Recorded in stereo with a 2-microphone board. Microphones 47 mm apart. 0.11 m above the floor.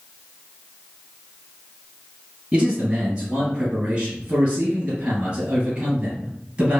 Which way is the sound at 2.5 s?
20° right (ahead or behind).